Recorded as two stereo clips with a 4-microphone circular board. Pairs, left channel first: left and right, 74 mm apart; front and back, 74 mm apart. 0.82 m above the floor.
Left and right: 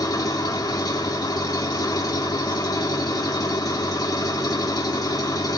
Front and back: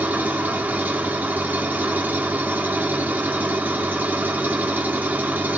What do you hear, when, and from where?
0.0 s an engine running: 115° left, 1.9 m